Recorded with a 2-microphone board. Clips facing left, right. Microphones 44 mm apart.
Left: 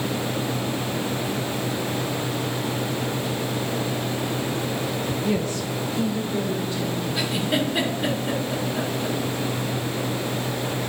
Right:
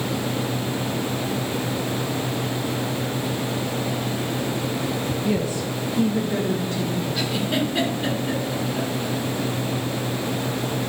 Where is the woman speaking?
10° left (ahead or behind), 0.6 m; by 7.1 s 60° right (ahead or behind), 1.5 m.